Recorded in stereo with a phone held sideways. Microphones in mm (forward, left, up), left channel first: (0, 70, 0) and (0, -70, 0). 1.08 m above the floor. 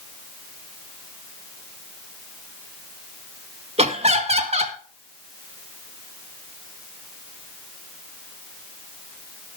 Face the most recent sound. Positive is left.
turn(degrees=-45)  # may be behind; listen again after turning